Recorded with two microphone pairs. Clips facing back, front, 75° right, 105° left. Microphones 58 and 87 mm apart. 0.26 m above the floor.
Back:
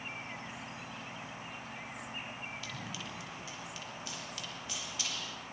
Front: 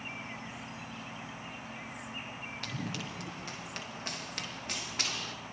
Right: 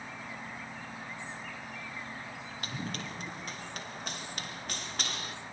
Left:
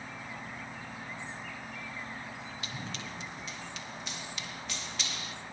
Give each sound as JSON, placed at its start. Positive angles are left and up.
{"t": 2.6, "sound": "running footsteps", "azimuth_deg": -35, "distance_m": 5.5}